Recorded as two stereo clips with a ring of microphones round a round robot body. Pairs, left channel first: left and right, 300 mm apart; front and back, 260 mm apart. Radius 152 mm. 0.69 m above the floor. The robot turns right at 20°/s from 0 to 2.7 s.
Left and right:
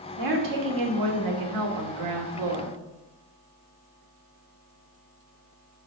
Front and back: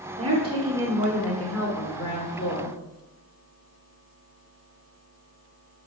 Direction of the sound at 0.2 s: 110° right.